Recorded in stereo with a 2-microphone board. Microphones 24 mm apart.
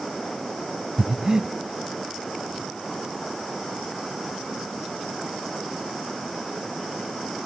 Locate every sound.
1.0 s breathing: 25° right (ahead or behind), 0.7 m